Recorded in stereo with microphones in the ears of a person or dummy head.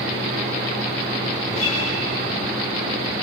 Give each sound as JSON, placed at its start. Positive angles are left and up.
{"t": 1.5, "sound": "a guitar", "side_deg": 40, "distance_m": 8.0}